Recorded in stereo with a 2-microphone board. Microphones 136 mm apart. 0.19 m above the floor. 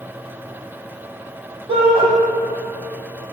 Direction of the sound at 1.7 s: 40° right (ahead or behind).